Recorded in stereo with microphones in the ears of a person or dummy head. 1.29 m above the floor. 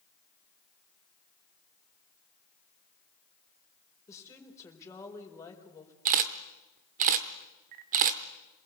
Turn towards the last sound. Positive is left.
turn(degrees=-40)  # may be behind; listen again after turning